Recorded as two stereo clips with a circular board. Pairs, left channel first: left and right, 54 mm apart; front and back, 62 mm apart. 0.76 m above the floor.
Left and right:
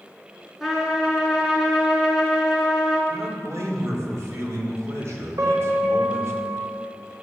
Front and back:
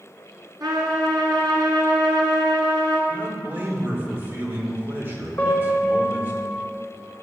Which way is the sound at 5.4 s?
70° right.